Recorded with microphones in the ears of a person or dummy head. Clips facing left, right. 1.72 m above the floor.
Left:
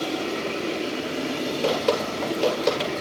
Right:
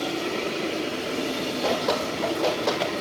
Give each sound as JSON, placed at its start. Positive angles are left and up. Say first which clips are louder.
{"t": 1.6, "sound": "dripping", "louder": "left 2 dB", "side_deg": 40, "distance_m": 8.5}